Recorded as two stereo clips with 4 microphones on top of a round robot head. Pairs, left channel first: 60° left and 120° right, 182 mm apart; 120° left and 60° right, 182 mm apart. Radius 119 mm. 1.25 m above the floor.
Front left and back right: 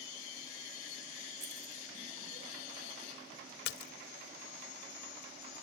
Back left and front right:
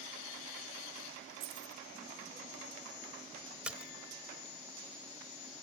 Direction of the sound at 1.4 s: 70° right.